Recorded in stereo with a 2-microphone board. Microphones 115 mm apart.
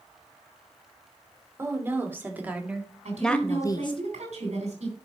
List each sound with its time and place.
1.6 s a woman speaking: 20° right (ahead or behind), 3.5 m; by 4.0 s 50° left (ahead or behind), 1.0 m
3.0 s a woman speaking: 70° right (ahead or behind), 3.5 m